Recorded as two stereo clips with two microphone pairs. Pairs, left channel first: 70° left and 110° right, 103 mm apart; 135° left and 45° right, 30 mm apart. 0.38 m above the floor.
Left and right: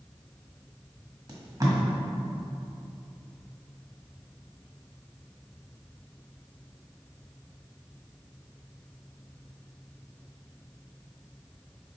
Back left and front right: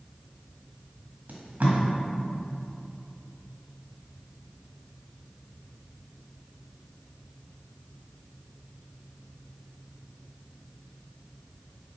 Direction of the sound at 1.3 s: 60° right.